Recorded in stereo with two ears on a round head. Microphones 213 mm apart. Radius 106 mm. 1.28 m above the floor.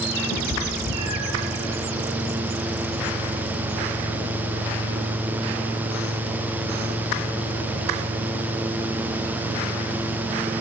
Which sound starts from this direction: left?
A cat meowing, at 0.3 s.